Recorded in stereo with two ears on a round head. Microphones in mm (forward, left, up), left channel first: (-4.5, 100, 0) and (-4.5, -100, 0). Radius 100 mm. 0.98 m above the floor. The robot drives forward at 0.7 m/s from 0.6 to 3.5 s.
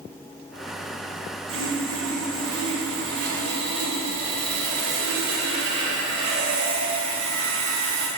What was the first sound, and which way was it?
Sawing, 65° right (ahead or behind).